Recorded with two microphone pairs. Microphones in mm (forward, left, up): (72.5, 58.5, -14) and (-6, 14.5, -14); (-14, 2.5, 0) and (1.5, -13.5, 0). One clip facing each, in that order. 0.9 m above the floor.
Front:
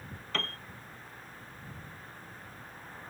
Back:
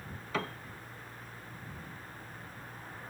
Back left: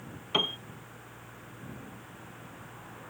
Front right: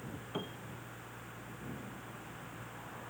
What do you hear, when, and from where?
0.3 s a piano: 125° left